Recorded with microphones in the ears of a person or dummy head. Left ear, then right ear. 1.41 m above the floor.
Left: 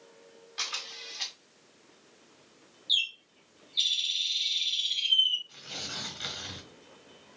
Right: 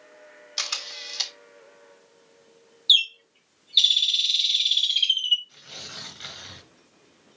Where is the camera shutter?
75° right (ahead or behind), 1.8 m.